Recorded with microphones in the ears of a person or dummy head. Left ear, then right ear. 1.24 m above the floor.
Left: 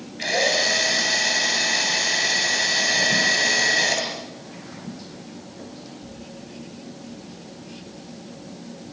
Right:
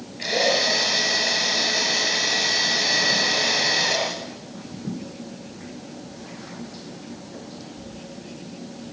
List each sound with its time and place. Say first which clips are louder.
0.2 s a drill: even; 30° left (ahead or behind), 8 m